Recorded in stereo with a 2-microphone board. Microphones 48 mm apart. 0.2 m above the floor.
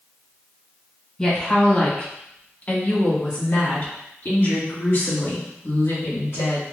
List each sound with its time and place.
1.2 s a woman speaking: 15° left (ahead or behind), 1.6 m; by 6.6 s 60° left (ahead or behind), 3 m